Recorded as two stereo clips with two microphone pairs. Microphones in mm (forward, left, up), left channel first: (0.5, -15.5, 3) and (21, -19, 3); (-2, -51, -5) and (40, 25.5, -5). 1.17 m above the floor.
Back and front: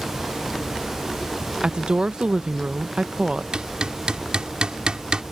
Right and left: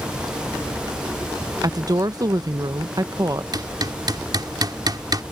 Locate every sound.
1.6 s a woman speaking: 20° left
3.5 s hammering: 25° left